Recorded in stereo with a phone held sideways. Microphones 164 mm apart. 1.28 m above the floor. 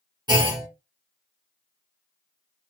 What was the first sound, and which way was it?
A clunk, 25° right (ahead or behind).